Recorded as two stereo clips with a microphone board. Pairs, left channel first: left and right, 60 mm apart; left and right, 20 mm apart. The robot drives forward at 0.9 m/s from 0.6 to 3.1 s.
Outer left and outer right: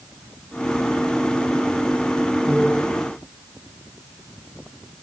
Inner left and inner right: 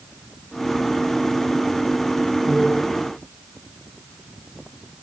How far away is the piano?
About 5 m.